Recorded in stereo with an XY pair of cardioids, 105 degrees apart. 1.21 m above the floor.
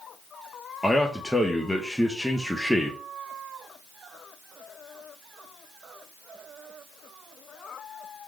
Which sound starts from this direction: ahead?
A man speaking, at 0.8 s.